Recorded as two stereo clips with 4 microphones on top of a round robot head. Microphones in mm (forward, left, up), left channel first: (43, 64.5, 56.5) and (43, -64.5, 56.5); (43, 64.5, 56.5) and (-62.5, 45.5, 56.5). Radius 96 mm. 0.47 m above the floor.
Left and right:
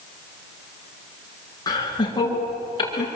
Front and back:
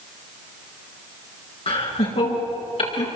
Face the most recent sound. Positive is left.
turn(degrees=40)